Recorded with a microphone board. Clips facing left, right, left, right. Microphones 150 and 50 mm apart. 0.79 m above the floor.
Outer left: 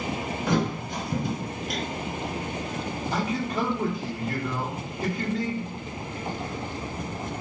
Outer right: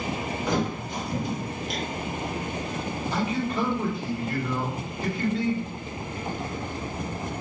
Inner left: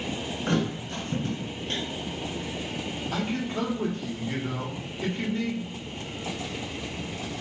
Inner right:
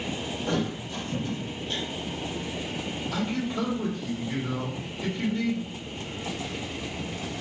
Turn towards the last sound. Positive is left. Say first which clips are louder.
# outer right 1 dB, even
turn(degrees=40)  # may be behind; listen again after turning